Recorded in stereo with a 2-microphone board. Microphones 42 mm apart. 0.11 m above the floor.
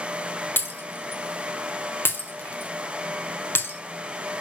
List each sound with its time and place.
0.6 s breaking glass: 55° left (ahead or behind), 1.1 m